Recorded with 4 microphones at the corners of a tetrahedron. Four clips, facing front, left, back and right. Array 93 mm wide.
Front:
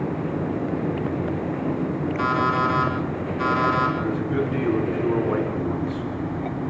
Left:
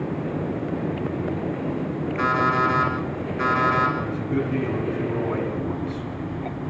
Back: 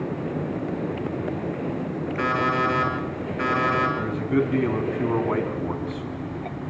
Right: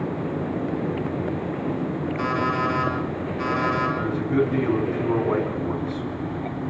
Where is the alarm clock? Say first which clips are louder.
Left 4 dB, front 1 dB; 140° left, 8 m.